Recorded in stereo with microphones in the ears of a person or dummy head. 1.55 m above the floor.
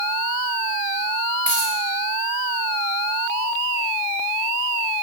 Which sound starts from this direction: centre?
A dropped coin, at 1.5 s.